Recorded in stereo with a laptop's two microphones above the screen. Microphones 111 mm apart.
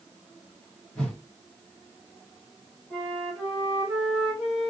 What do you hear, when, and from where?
0.9 s a whoosh: 10° left (ahead or behind), 1.3 m
2.9 s a flute: centre (ahead or behind), 2.0 m